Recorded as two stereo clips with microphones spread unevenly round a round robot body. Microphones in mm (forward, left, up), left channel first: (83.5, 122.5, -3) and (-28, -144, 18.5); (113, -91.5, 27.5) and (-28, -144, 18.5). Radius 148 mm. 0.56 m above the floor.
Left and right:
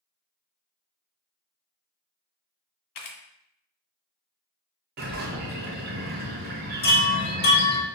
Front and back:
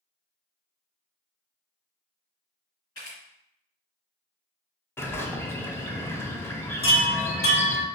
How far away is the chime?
About 1.0 m.